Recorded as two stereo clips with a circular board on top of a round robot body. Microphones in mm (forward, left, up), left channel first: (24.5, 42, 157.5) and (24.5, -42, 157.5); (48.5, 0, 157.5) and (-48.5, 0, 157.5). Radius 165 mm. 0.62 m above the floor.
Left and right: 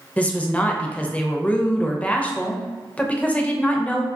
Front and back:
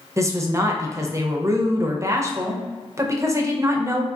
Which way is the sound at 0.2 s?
150° left.